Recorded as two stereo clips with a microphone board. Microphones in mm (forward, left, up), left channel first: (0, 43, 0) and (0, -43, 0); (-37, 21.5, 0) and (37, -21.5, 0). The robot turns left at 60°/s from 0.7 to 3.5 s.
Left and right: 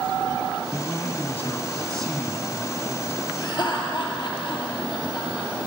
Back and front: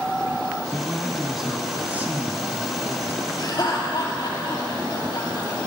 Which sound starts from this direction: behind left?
Laughter, at 3.4 s.